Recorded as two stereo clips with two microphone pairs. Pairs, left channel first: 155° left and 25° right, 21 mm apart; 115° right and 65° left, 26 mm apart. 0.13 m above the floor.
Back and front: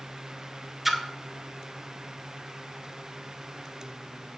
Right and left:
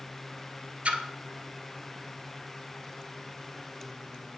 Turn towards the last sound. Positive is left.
turn(degrees=60)